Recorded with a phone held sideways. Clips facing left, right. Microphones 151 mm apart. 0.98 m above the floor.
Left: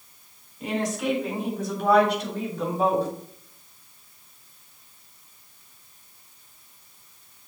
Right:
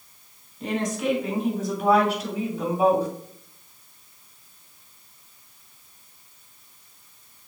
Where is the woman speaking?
5° left (ahead or behind), 3.5 m; by 3.1 s 10° right (ahead or behind), 2.5 m.